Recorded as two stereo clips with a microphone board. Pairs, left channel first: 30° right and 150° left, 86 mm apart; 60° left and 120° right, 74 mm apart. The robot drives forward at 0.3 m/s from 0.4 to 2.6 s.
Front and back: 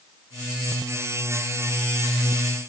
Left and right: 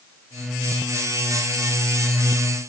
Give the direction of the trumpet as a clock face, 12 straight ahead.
No trumpet in this recording.